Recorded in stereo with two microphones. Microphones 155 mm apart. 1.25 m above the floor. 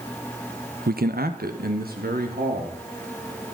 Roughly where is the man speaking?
Right.